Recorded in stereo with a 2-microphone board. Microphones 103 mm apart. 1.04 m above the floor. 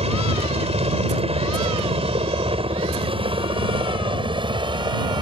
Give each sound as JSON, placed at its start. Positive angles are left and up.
{"t": 0.0, "sound": "a helicopter", "side_deg": -75}